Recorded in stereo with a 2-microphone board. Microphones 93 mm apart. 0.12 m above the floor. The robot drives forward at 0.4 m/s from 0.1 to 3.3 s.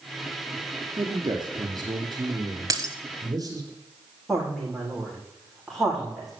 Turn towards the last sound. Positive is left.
turn(degrees=0)  # may be behind; listen again after turning